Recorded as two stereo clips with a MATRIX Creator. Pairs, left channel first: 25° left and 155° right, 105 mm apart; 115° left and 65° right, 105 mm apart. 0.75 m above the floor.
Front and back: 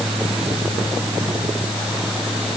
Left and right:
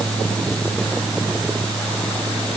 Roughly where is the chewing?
No chewing in this recording.